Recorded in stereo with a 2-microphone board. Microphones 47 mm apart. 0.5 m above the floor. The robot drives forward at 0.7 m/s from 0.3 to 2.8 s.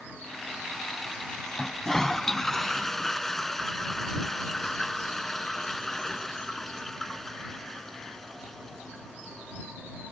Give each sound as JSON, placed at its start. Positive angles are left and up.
{"t": 1.6, "sound": "a toilet flushing", "side_deg": 15}